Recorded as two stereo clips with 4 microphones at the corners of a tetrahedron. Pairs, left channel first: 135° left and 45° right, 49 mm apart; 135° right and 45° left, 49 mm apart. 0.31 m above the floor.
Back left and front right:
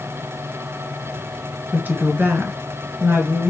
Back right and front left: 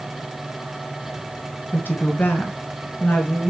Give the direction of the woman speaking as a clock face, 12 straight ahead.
3 o'clock.